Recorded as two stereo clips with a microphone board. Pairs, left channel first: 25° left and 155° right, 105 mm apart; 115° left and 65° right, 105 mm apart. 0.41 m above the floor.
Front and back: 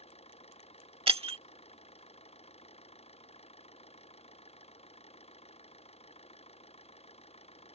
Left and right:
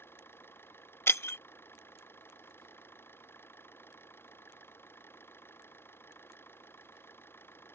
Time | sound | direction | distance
0.0 | an engine running | 45° left | ?
1.1 | breaking glass | straight behind | ?